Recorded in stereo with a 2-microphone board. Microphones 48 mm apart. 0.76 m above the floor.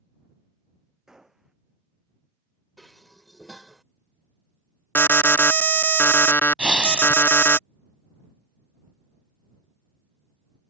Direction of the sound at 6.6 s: 20° right (ahead or behind).